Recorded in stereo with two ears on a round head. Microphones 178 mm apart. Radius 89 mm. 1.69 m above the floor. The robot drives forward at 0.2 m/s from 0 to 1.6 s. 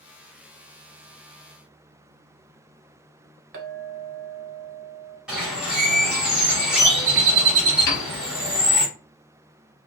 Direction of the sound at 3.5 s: 45° right (ahead or behind).